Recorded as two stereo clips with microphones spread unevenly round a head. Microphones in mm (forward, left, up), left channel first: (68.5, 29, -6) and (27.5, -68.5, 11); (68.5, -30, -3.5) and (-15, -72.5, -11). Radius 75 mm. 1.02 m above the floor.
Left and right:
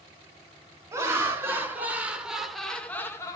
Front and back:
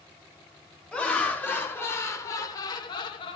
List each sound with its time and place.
0.9 s laughter: 45° right, 1.9 m; by 3.4 s 30° left, 0.9 m